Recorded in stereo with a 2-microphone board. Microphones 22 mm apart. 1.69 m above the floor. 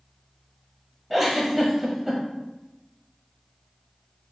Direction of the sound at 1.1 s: 10° right (ahead or behind).